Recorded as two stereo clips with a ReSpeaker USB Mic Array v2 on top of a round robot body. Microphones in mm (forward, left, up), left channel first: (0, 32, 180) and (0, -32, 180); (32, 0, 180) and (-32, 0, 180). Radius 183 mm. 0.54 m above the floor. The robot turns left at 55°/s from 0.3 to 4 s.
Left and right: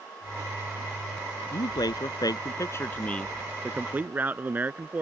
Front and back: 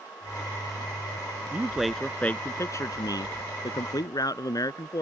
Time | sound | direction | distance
1.5 | a man speaking | 110° left | ?